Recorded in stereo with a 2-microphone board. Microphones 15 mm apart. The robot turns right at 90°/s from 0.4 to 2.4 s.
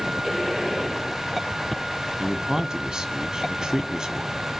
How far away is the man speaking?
About 2 m.